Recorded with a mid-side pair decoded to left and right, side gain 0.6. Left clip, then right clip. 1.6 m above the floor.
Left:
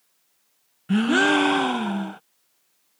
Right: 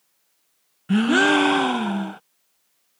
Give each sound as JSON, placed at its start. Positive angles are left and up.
{"t": 0.9, "sound": "a gasp", "azimuth_deg": -10}